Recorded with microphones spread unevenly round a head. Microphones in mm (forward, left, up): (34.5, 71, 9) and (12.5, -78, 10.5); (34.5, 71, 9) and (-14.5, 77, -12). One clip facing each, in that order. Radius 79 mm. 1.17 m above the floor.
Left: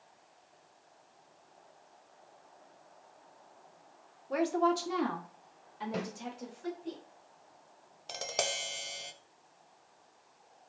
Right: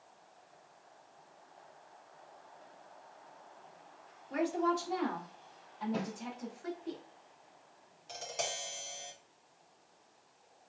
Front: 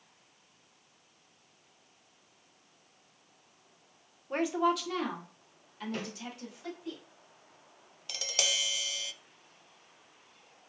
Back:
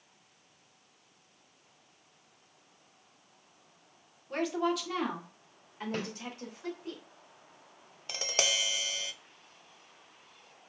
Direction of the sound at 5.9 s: 120° left.